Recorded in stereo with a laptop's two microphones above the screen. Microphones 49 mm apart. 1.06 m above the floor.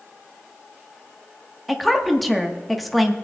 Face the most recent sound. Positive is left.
turn(degrees=0)  # may be behind; listen again after turning